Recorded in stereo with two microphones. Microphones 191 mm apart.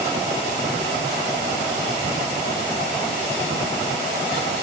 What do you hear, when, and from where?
Only background noise.